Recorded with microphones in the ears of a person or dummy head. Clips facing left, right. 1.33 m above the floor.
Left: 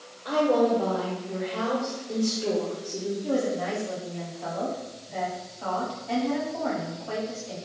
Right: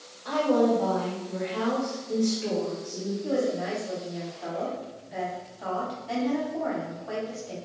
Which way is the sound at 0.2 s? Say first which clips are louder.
Left 1 dB; 20° left (ahead or behind).